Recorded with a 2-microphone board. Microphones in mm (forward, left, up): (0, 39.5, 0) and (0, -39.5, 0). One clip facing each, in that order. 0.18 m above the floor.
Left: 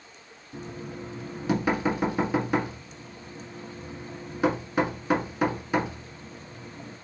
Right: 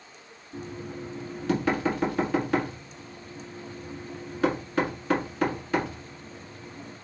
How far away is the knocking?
About 1.5 m.